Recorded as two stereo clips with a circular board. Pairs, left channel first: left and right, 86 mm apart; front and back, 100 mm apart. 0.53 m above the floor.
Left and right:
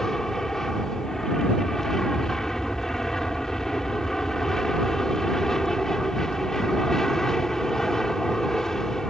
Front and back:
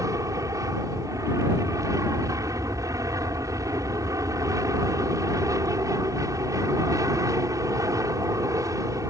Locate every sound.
0.0 s an aircraft: 170° left